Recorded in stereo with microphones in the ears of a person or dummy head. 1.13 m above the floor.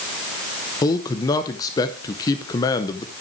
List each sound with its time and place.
0.8 s a man speaking: 25° left (ahead or behind), 0.7 m